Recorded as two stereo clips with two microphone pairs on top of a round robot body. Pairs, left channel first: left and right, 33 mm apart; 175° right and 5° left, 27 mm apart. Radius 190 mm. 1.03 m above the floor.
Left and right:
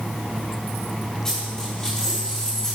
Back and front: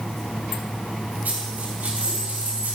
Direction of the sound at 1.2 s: 15° left.